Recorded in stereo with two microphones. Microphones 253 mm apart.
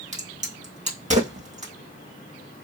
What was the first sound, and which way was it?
A crack, 30° right (ahead or behind).